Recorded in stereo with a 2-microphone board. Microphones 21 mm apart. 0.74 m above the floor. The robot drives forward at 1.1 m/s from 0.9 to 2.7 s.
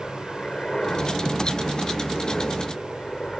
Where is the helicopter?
40° left (ahead or behind); by 3.4 s 35° left (ahead or behind).